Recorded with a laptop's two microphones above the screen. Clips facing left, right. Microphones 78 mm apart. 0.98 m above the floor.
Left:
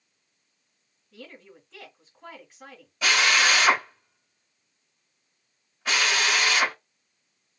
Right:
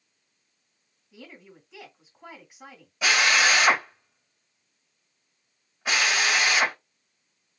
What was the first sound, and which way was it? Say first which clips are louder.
A woman speaking: left 1 dB; 10° right (ahead or behind).